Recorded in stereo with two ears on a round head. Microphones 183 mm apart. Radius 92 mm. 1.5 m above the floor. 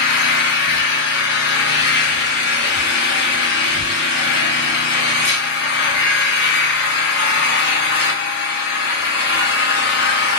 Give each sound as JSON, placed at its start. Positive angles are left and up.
{"t": 0.0, "sound": "an engine running", "side_deg": 55, "distance_m": 0.9}